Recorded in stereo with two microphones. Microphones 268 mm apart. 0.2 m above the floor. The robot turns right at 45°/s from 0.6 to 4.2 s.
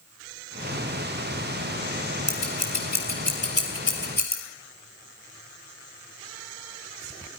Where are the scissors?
55° left (ahead or behind), 3.5 m; by 4.4 s 35° left (ahead or behind), 3.5 m.